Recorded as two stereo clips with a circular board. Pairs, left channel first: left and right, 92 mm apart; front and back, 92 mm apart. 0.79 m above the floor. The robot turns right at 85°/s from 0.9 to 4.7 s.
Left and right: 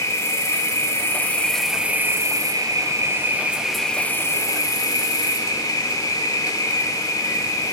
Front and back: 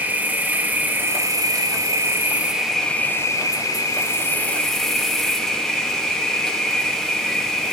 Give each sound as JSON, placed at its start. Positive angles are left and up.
{"t": 0.0, "sound": "an insect", "azimuth_deg": 120, "distance_m": 2.0}